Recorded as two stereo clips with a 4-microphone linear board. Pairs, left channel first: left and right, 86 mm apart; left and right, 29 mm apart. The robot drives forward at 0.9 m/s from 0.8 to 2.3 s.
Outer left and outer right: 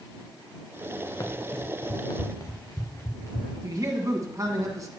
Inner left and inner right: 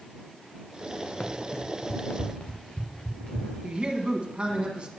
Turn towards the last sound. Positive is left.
turn(degrees=-40)  # may be behind; listen again after turning